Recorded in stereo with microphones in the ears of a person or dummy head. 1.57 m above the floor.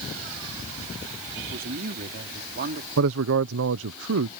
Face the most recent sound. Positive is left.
turn(degrees=-70)  # may be behind; listen again after turning